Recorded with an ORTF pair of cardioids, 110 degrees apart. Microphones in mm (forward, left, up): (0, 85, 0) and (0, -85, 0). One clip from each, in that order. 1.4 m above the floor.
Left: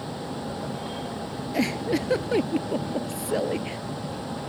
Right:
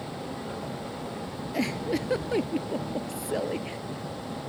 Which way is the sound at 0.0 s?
25° left.